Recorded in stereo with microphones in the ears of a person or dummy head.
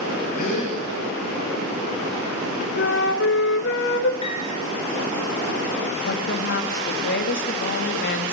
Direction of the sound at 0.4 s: 50° left (ahead or behind).